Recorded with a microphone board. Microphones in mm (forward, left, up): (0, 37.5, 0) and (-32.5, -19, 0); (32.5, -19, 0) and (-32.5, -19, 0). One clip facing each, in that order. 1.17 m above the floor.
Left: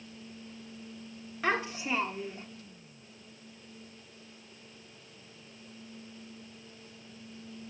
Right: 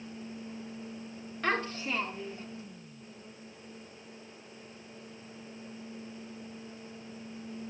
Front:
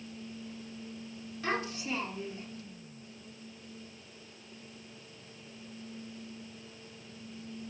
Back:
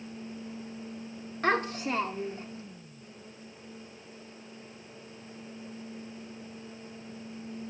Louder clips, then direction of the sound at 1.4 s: Left 1 dB, back 6 dB; 145° left.